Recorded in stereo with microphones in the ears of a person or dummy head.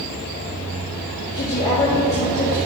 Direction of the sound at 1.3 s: 25° left (ahead or behind).